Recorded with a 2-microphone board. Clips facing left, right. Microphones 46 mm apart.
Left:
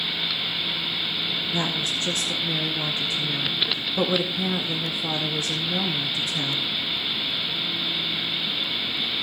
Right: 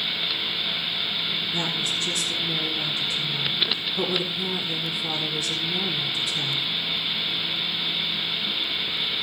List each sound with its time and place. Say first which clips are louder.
1.5 s a woman speaking: left 1 dB; 40° left (ahead or behind), 2 m